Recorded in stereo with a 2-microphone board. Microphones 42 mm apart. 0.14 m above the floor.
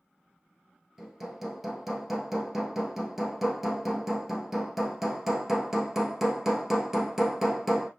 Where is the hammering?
5° right (ahead or behind), 1.2 m.